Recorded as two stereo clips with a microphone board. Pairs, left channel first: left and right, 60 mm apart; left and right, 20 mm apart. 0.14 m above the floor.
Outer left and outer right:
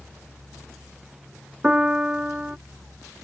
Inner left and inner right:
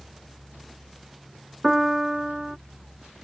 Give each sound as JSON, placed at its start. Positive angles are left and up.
{"t": 1.6, "sound": "a piano", "side_deg": -20}